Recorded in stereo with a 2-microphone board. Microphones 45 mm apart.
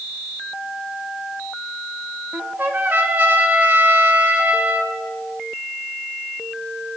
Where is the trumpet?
50° right (ahead or behind), 1.3 m.